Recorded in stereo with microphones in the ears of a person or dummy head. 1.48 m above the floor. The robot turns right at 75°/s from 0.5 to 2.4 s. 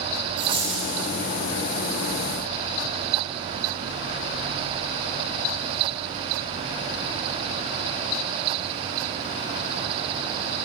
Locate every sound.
0.4 s a dropped coin: 155° right, 3.5 m; by 0.9 s 125° right, 3.5 m